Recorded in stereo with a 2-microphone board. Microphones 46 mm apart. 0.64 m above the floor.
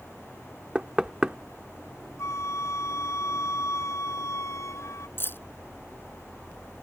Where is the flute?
85° left.